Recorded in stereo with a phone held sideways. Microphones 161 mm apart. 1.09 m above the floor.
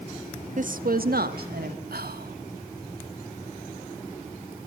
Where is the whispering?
80° right, 1.9 m.